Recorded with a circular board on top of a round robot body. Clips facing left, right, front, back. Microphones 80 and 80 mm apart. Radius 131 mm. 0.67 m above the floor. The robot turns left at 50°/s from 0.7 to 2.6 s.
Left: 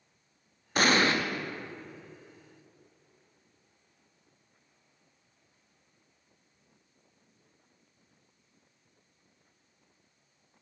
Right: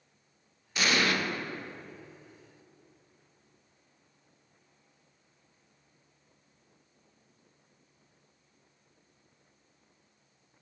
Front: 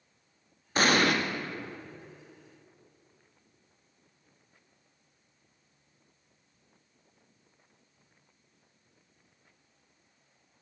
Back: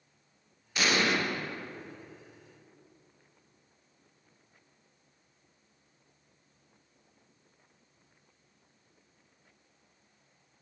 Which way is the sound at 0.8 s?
50° left.